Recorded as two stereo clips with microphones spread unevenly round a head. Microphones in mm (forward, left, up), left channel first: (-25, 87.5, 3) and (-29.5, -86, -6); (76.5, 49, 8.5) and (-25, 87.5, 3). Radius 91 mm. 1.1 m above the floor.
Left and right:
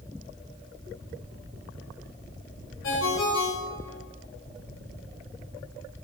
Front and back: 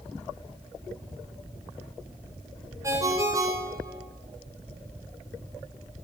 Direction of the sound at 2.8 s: 95° left.